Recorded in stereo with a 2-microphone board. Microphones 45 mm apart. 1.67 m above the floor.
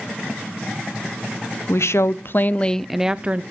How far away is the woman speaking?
About 0.9 m.